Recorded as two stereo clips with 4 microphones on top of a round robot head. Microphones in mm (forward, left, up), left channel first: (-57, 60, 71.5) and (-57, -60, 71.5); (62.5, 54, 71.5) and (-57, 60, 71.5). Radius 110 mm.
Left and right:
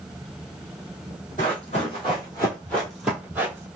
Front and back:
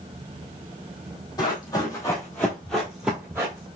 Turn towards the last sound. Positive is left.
turn(degrees=-140)